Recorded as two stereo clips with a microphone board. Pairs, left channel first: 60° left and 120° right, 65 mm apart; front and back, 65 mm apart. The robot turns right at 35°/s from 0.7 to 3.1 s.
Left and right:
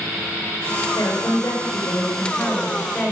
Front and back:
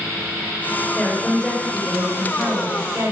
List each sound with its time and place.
0.9 s a woman speaking: 65° left, 4 m; by 3.1 s 140° left, 4 m